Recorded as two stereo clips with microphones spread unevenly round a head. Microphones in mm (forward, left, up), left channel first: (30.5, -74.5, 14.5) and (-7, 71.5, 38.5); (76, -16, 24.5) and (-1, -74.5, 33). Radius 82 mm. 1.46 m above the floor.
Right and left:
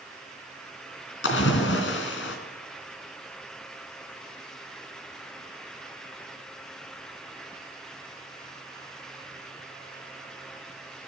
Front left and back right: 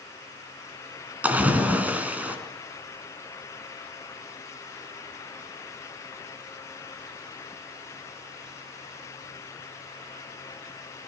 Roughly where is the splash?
Right.